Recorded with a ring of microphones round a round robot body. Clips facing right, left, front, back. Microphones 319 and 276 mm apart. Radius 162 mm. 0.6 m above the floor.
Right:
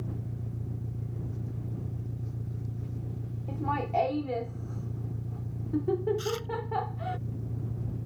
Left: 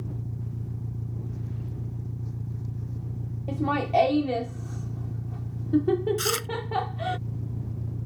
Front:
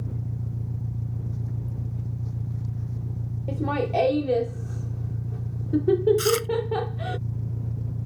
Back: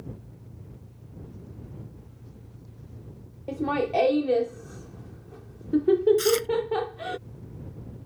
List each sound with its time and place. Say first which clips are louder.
0.0 s an engine running: left 1 dB, front 7 dB; 15° left
3.5 s laughter: left 7 dB, even; 90° left
6.2 s chewing: left 2 dB, even; 75° left